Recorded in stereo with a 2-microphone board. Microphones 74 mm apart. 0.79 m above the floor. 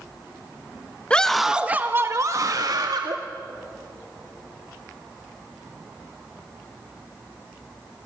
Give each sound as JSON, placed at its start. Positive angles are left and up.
{"t": 1.1, "sound": "a scream", "side_deg": 15, "distance_m": 0.8}